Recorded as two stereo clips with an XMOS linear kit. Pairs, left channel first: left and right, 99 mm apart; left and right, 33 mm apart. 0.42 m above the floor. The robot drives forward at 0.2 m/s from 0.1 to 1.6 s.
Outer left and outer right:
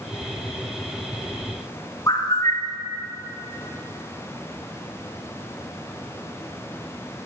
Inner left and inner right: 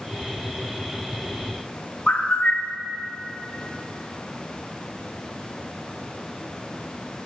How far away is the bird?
About 1.1 m.